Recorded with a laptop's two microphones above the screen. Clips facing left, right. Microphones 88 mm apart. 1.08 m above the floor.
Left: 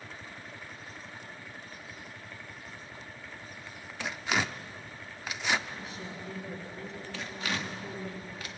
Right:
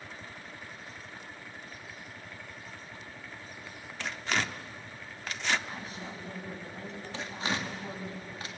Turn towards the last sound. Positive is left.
turn(degrees=-30)  # may be behind; listen again after turning